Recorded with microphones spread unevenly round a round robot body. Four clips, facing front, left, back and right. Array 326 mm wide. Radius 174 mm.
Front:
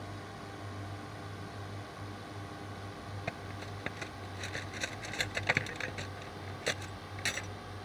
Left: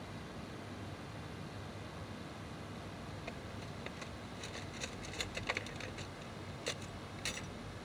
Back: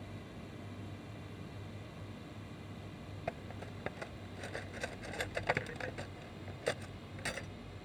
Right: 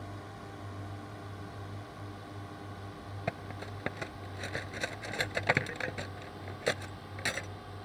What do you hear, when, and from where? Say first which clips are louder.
0.0 s a drone: right 3 dB, front 4 dB; 50° right; by 7.8 s 45° right
3.3 s cutlery clinking: right 7 dB, back 1 dB; 75° right